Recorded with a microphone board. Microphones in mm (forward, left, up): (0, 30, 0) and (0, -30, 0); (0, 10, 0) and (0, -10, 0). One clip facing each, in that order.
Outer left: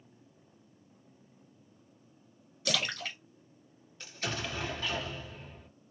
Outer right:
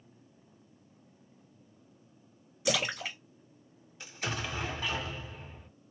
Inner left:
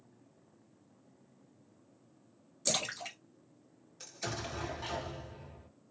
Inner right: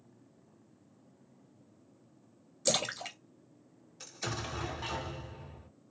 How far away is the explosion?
About 0.9 m.